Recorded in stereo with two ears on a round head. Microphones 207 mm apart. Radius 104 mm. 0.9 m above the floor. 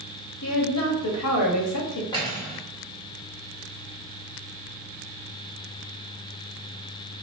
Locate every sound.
0.4 s a woman speaking: 75° left (ahead or behind), 1.2 m
2.1 s cutlery clinking: 20° left (ahead or behind), 1.7 m